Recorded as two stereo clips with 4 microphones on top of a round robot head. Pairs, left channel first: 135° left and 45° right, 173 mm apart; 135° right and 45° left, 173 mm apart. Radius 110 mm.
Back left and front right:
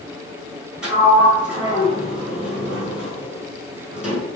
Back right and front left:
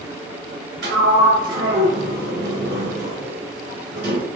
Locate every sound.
0.8 s a sliding door: 40° left, 1.3 m